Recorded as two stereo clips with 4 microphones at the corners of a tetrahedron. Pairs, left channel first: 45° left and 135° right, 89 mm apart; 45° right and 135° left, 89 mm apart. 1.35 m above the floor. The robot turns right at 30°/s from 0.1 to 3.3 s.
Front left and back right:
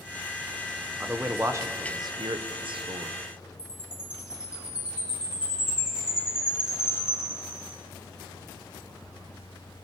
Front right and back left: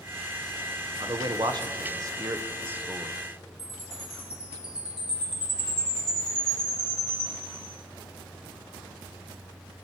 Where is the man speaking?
150° left, 0.8 m; by 3.2 s 145° right, 0.8 m.